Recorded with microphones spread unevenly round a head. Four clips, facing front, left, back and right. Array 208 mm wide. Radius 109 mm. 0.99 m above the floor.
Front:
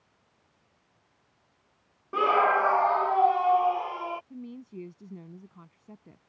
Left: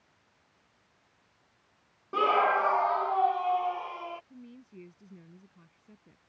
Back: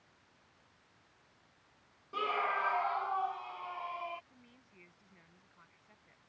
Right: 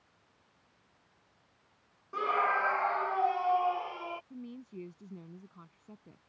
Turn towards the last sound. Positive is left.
turn(degrees=-15)